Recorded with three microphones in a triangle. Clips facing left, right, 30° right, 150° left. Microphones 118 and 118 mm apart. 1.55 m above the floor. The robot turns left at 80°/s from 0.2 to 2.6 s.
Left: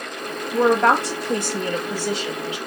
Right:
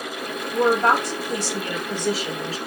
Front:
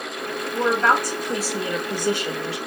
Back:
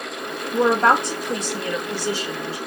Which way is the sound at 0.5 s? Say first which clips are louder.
Left 2 dB, back 3 dB; 125° left.